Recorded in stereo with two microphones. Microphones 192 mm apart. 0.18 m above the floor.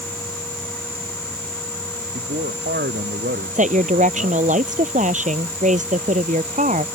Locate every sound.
2.1 s a man speaking: 65° right (ahead or behind)
3.5 s a woman speaking: 40° right (ahead or behind)